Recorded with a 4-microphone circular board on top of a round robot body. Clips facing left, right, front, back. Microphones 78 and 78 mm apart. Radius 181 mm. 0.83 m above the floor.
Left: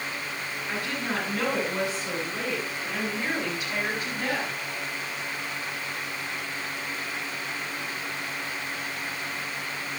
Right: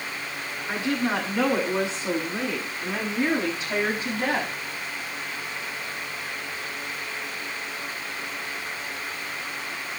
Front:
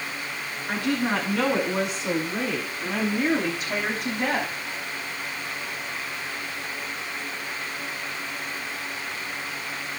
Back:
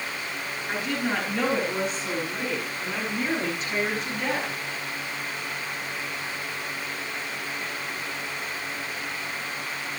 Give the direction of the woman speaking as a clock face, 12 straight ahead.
1 o'clock.